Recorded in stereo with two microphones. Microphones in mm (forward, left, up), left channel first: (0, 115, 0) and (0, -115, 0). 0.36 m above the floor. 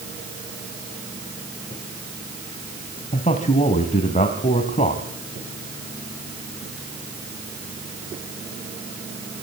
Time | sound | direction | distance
3.1 | a man speaking | 30° left (ahead or behind) | 2 m